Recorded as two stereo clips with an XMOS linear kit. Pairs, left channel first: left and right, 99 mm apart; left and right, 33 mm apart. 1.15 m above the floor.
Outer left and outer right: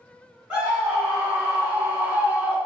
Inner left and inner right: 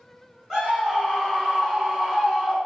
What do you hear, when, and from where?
0.5 s a scream: 15° right (ahead or behind), 1.1 m